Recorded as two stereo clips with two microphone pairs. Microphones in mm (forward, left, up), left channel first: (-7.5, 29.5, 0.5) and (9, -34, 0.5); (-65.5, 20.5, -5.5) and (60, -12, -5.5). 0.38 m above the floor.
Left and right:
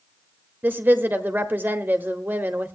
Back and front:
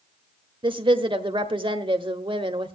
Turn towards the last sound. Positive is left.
turn(degrees=-35)